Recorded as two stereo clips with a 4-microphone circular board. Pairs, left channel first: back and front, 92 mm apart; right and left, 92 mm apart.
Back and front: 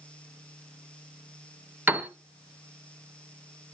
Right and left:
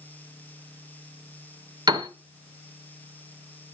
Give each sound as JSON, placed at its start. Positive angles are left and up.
{"t": 1.9, "sound": "a piano", "azimuth_deg": 65, "distance_m": 2.0}